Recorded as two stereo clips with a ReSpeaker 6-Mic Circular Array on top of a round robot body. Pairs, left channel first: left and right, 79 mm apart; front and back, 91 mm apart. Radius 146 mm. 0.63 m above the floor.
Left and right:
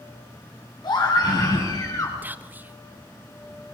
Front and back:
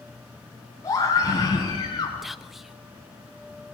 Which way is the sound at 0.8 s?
55° left.